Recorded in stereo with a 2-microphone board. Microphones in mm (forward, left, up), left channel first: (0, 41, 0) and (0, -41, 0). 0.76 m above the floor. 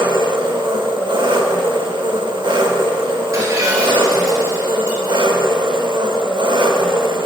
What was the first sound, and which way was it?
An engine running, 75° right (ahead or behind).